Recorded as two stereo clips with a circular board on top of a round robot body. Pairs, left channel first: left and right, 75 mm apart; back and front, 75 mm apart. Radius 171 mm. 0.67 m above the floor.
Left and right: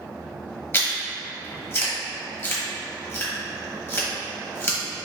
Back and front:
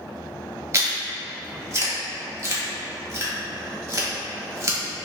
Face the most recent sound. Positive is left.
turn(degrees=40)